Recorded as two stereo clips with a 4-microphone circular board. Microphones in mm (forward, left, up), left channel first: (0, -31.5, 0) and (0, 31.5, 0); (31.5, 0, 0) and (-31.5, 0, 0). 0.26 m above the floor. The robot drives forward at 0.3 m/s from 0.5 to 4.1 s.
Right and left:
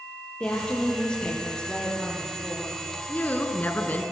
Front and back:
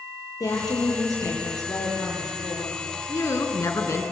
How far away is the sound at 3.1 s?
About 3.5 m.